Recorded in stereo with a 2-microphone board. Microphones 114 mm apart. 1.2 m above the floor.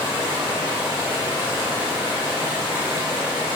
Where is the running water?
40° right (ahead or behind), 3 m.